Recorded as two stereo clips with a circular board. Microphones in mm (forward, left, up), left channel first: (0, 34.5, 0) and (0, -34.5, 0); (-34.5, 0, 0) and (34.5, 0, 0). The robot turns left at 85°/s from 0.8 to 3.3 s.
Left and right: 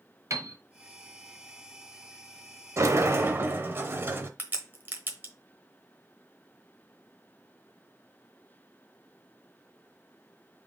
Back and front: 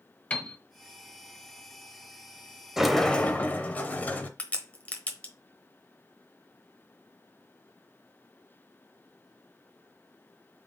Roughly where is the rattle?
No rattle in this recording.